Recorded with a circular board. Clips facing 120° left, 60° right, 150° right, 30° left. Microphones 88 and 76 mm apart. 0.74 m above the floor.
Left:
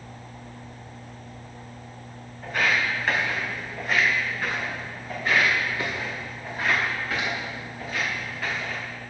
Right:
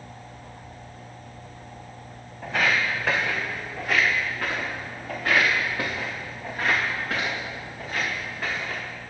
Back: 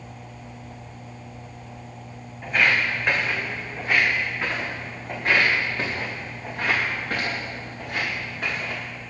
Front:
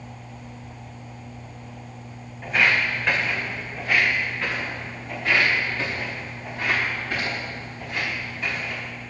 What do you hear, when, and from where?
2.4 s footsteps: 60° right, 2.5 m; by 8.8 s 120° right, 5 m